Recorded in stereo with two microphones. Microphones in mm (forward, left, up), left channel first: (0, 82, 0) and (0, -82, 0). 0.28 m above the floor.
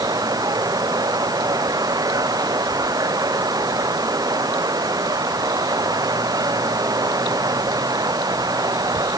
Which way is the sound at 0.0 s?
20° right (ahead or behind).